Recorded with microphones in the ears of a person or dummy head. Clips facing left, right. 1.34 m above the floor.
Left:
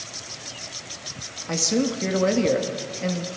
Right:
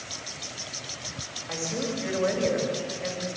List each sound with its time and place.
1.5 s a man speaking: 55° left (ahead or behind), 2 m